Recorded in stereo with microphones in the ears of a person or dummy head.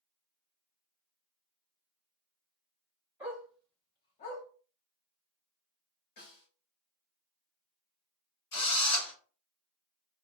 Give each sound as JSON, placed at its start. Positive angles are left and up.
{"t": 3.2, "sound": "a dog barking", "side_deg": -10, "distance_m": 0.9}
{"t": 6.2, "sound": "a snare drum", "side_deg": 50, "distance_m": 1.6}
{"t": 8.5, "sound": "a drill", "side_deg": 60, "distance_m": 1.6}